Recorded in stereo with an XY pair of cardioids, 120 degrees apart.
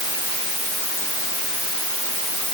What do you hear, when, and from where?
Only background noise.